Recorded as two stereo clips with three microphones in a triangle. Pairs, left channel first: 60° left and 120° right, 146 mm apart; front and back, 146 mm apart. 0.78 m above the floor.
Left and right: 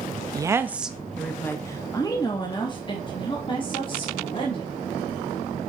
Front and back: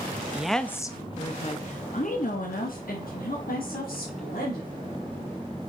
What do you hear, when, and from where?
0.3 s a woman speaking: 110° right, 0.5 m; by 4.7 s 5° left, 2 m